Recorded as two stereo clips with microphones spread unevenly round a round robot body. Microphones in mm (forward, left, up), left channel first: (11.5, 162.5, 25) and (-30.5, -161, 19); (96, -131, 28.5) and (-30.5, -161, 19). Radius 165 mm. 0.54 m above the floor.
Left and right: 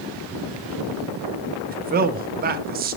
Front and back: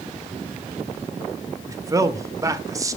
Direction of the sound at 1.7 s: 130° right.